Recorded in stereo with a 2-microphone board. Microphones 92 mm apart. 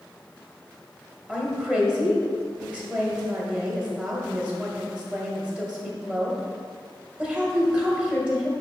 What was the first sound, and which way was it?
A woman speaking, 15° right (ahead or behind).